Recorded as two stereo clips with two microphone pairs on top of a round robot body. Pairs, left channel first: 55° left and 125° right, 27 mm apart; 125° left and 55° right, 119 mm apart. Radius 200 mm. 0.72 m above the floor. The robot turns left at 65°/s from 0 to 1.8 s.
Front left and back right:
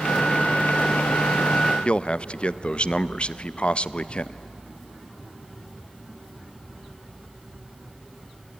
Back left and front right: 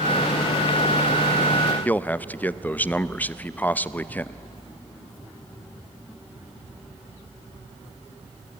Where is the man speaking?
55° left, 0.8 m.